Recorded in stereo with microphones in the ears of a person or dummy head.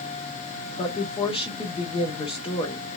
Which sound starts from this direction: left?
A woman speaking, at 0.8 s.